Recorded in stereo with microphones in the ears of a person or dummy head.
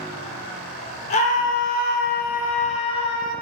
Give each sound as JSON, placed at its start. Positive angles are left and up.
{"t": 1.1, "sound": "a scream", "side_deg": 35, "distance_m": 0.8}